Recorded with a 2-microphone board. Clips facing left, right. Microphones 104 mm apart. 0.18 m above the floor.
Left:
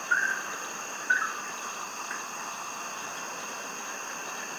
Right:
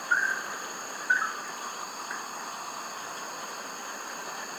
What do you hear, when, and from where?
0.0 s an insect: 5° right (ahead or behind)